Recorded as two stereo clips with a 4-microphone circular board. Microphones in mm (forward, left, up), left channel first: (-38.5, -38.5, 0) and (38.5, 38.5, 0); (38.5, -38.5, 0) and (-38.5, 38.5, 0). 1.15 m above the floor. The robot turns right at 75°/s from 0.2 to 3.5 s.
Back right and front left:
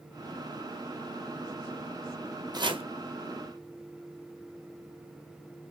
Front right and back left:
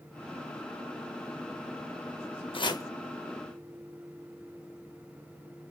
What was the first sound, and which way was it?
Chopping, 5° right.